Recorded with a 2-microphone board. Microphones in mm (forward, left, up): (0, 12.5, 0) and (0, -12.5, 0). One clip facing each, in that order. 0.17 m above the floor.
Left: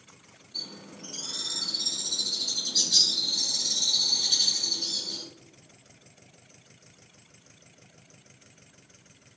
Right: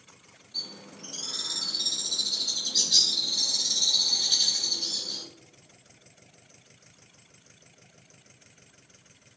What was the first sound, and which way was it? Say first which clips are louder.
A bird: right 1 dB; 25° right (ahead or behind).